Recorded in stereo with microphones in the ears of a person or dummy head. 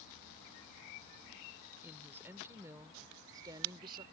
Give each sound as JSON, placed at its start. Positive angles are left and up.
{"t": 1.8, "sound": "a woman speaking", "side_deg": -10}